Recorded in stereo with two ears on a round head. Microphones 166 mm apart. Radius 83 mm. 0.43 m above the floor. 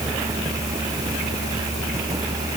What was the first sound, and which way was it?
Only background noise.